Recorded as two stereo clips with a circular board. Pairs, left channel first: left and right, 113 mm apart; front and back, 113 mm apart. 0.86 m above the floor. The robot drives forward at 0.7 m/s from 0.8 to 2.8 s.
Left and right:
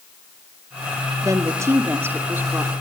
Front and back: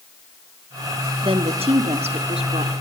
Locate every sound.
1.2 s a woman speaking: 150° right, 1.3 m; by 2.7 s 165° right, 2 m